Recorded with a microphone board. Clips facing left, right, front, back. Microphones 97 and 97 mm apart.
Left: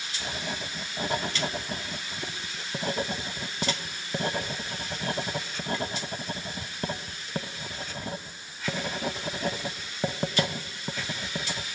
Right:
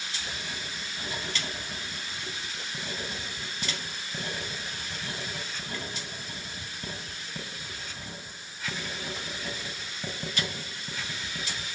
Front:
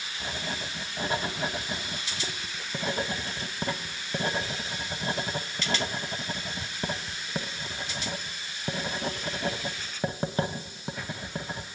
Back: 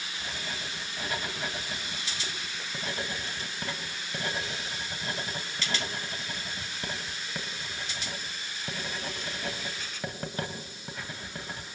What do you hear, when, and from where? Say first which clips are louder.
0.2 s writing: left 8 dB, front 5 dB; 60° left, 1.6 m